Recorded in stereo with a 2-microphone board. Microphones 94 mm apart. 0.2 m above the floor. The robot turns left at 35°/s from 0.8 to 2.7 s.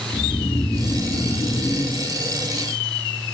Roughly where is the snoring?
Behind left.